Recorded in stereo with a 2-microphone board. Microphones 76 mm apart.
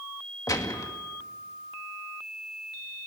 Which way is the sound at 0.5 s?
50° left (ahead or behind).